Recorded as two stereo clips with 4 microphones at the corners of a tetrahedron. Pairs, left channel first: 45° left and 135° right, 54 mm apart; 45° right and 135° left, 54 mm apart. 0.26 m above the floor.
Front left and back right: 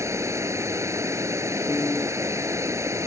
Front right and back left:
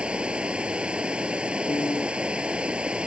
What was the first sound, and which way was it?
Running water, 155° right.